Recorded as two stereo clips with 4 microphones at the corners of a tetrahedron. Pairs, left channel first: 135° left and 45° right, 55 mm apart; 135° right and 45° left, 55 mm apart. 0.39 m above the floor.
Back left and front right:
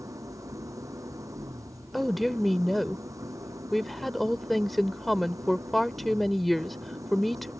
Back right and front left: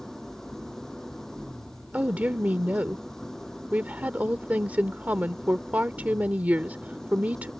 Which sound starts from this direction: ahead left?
A woman speaking, at 1.9 s.